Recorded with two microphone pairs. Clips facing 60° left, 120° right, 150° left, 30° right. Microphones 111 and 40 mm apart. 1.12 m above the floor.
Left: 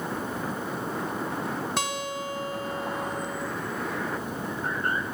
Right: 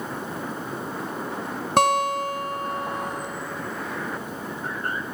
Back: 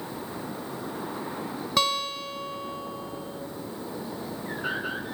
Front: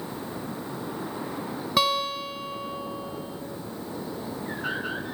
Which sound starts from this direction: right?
A guitar, at 1.8 s.